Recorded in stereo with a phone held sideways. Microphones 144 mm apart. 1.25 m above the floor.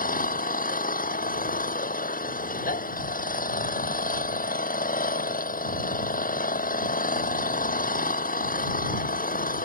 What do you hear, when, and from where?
0.0 s an engine running: 70° left (ahead or behind)